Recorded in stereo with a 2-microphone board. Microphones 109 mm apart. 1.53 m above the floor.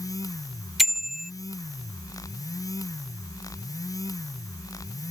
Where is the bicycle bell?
Centre (ahead or behind).